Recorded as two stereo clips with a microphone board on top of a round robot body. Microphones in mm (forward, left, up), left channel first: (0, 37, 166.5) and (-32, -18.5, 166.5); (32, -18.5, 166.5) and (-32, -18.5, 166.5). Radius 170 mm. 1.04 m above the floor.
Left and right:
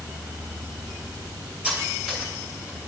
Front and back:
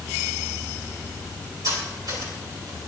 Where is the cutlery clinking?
165° left, 7.5 m.